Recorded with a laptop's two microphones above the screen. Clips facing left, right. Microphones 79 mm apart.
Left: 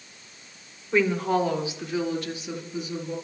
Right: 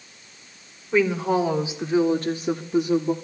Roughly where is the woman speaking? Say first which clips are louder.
Right 2 dB; centre.